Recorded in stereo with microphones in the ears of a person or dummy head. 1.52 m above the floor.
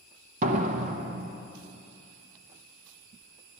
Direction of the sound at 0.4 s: 40° right (ahead or behind).